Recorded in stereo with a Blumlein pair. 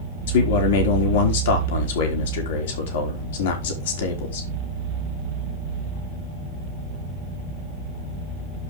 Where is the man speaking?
55° left, 3.5 m.